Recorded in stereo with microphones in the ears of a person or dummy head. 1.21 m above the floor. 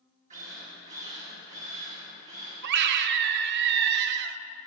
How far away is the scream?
About 0.5 m.